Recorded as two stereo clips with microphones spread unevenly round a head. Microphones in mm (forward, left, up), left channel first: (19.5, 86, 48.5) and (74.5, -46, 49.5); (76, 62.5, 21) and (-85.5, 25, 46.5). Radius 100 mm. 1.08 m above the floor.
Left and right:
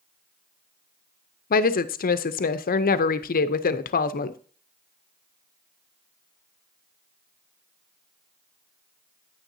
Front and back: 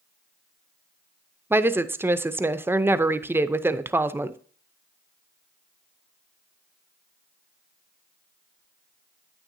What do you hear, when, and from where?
1.5 s a woman speaking: 115° left, 0.6 m